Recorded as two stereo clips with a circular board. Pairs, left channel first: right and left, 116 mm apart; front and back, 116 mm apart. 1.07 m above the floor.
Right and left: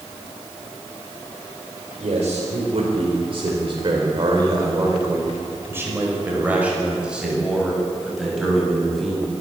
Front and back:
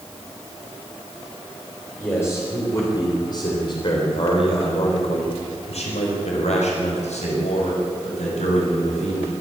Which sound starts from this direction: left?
A man speaking, at 2.0 s.